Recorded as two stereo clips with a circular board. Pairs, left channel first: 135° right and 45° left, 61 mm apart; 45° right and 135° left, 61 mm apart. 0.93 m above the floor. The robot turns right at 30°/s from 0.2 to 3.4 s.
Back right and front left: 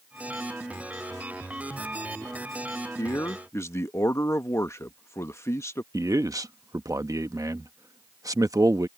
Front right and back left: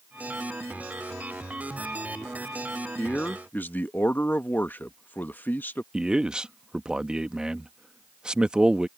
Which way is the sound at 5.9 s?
60° left.